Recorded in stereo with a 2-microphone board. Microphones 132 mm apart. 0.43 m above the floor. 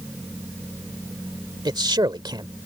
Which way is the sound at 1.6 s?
35° right (ahead or behind).